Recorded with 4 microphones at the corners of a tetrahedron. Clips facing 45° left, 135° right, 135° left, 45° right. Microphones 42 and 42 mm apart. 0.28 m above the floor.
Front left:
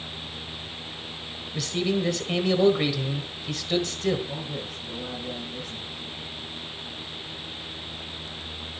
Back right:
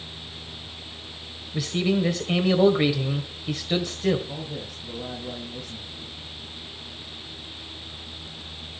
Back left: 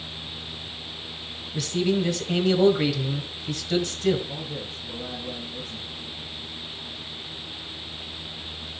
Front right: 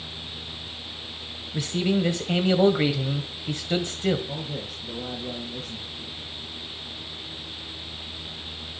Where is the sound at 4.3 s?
30° right, 6 m.